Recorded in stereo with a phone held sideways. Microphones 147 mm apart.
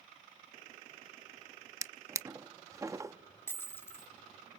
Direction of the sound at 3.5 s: 15° left (ahead or behind).